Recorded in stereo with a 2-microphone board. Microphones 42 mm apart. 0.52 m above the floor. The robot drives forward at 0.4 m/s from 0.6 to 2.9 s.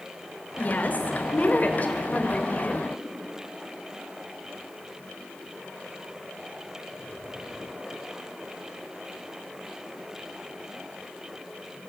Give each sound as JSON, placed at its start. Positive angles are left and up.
{"t": 0.6, "sound": "a woman speaking", "side_deg": 45, "distance_m": 2.0}